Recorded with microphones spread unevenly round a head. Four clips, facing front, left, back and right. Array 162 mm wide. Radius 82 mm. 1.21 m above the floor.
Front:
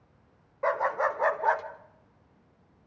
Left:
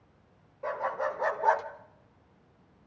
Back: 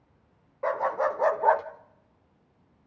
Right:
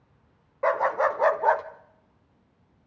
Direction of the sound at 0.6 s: 80° right.